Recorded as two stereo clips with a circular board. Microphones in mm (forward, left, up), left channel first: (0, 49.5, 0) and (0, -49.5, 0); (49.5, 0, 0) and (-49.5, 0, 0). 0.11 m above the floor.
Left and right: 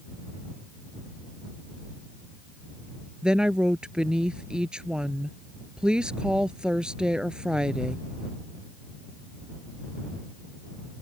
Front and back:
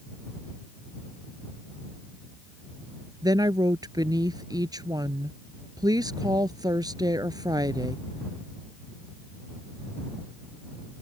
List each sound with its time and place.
3.2 s a woman speaking: 165° right